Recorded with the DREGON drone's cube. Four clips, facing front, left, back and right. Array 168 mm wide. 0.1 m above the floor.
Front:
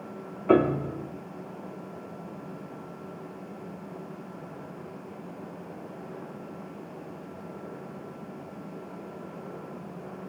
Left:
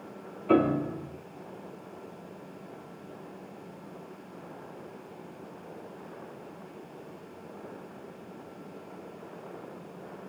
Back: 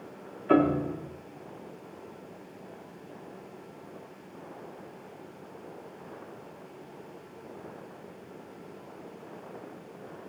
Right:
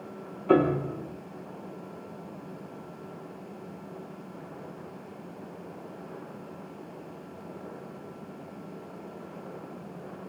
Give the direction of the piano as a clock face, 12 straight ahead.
12 o'clock.